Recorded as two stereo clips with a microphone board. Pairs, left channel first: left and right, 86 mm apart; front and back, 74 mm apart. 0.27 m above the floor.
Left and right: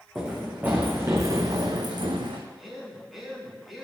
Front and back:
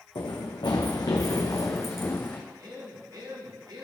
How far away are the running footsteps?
About 1.4 m.